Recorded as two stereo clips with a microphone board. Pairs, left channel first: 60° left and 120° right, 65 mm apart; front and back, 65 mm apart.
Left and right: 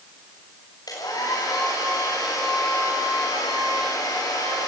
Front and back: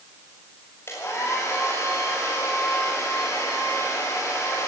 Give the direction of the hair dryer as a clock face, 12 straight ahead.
10 o'clock.